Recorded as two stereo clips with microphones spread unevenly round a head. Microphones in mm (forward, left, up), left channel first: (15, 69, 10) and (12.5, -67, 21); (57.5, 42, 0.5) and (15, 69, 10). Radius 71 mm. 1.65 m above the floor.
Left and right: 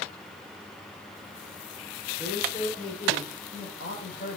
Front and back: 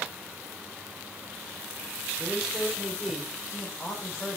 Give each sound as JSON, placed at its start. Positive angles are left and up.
{"t": 2.2, "sound": "a man speaking", "azimuth_deg": 70, "distance_m": 5.5}